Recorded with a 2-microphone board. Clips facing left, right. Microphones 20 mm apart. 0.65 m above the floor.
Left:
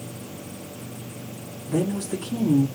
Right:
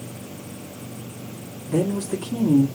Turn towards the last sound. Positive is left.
turn(degrees=-5)  # may be behind; listen again after turning